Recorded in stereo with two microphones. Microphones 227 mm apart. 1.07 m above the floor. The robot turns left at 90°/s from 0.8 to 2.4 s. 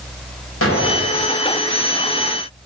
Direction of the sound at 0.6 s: 95° left.